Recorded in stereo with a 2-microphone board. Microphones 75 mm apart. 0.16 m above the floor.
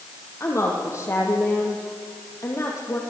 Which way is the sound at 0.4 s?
40° left (ahead or behind).